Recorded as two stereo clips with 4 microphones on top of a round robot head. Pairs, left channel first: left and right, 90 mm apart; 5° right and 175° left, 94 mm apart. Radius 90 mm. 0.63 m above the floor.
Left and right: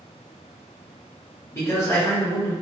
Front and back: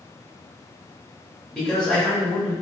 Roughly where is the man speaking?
Left.